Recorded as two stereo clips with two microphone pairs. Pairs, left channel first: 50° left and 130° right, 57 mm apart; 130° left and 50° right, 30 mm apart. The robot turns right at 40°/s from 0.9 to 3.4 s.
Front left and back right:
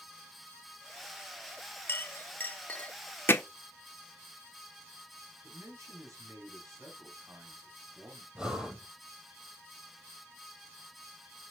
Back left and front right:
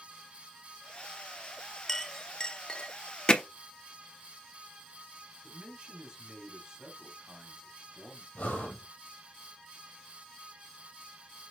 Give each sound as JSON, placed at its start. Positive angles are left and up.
{"t": 1.9, "sound": "a clink", "azimuth_deg": 55, "distance_m": 0.7}
{"t": 3.3, "sound": "hammering", "azimuth_deg": 80, "distance_m": 1.2}
{"t": 5.4, "sound": "a man speaking", "azimuth_deg": -110, "distance_m": 3.5}
{"t": 8.3, "sound": "breathing", "azimuth_deg": 155, "distance_m": 2.5}